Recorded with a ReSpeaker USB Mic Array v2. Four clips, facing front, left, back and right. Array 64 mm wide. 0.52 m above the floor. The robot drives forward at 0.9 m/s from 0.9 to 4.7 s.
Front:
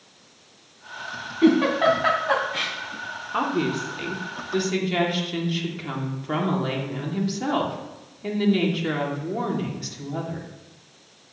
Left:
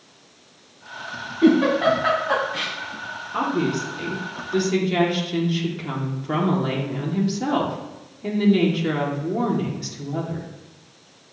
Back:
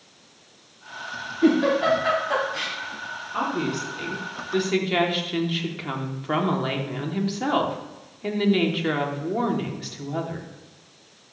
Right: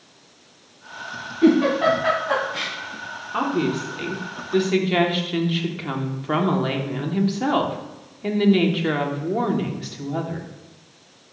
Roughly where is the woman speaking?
Ahead right.